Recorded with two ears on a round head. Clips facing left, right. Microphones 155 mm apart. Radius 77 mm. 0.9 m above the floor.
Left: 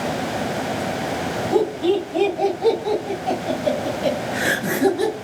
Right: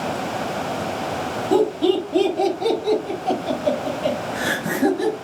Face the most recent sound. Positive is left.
turn(degrees=40)  # may be behind; listen again after turning